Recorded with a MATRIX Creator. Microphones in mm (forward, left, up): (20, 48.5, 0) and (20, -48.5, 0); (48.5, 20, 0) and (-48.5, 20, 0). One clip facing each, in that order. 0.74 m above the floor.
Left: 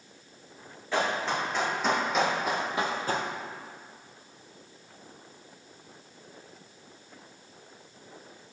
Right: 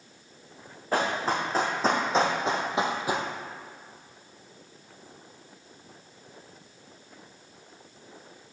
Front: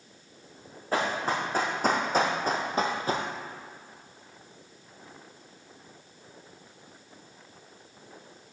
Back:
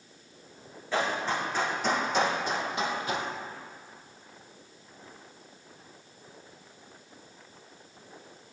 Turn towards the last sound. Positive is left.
turn(degrees=-10)